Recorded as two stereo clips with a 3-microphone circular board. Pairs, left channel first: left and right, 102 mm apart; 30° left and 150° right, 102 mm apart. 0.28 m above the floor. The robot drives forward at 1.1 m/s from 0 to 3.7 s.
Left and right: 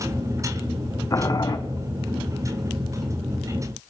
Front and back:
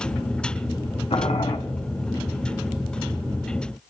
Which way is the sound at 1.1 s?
35° left.